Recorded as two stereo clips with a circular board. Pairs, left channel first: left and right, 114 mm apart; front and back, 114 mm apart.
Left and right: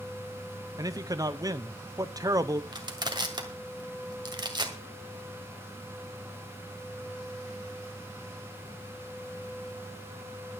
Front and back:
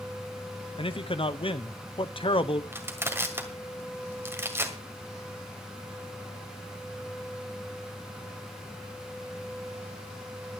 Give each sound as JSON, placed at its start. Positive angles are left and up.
{"t": 0.8, "sound": "a man speaking", "azimuth_deg": -35, "distance_m": 0.7}
{"t": 2.7, "sound": "crushing", "azimuth_deg": -120, "distance_m": 2.0}